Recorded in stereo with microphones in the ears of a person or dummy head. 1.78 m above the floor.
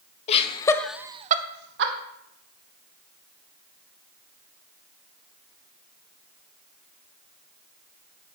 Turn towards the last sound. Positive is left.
turn(degrees=-70)  # may be behind; listen again after turning